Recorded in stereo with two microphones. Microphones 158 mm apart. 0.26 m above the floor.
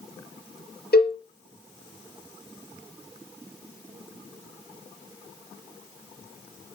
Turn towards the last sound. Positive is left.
turn(degrees=80)